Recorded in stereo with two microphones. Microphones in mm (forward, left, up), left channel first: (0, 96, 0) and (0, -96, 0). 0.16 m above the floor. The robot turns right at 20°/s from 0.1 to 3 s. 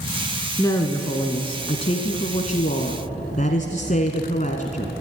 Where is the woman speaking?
25° left, 1.3 m; by 4.9 s 70° left, 1.3 m.